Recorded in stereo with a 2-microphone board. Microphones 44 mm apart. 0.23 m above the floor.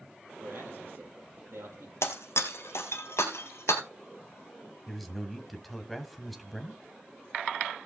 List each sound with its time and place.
0.4 s a man speaking: 65° right (ahead or behind), 7.5 m
2.0 s breaking glass: 70° left (ahead or behind), 1.9 m
4.9 s a man speaking: 5° left (ahead or behind), 1.7 m